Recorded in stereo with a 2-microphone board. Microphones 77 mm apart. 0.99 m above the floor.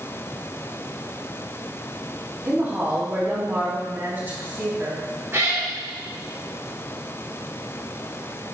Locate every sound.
2.5 s a woman speaking: 25° right (ahead or behind), 2.5 m
5.3 s a cat meowing: 35° right (ahead or behind), 1.7 m